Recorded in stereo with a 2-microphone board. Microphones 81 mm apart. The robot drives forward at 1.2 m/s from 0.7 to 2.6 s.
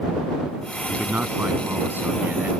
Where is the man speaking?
20° right (ahead or behind); by 2.5 s 25° right (ahead or behind).